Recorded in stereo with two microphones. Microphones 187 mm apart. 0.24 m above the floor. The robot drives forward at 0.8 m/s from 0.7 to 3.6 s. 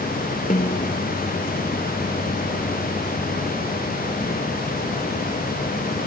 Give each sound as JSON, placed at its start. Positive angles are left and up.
{"t": 0.5, "sound": "a snare drum", "side_deg": 40}